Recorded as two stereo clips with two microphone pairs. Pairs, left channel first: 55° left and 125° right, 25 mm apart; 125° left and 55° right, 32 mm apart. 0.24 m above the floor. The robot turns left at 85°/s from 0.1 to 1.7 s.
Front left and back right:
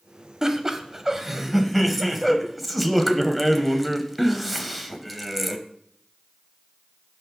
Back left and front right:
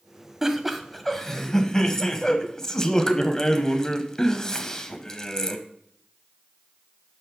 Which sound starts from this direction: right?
Laughter, at 0.4 s.